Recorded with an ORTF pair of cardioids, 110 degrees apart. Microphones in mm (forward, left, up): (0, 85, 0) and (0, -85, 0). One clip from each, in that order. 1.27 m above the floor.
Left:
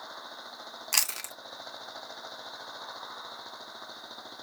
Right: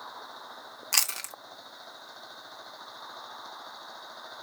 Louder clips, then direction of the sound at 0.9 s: Right 1 dB; 5° right.